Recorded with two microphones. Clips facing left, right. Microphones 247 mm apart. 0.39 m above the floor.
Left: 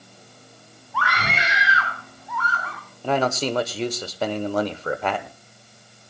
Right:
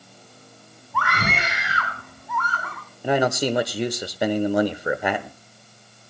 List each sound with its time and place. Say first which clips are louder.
0.9 s a scream: right 2 dB; 55° right (ahead or behind), 2.5 m
3.0 s a man speaking: right 2 dB; 15° right (ahead or behind), 0.9 m